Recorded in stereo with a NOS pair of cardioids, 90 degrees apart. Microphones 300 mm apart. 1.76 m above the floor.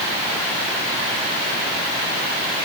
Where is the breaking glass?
I don't hear breaking glass.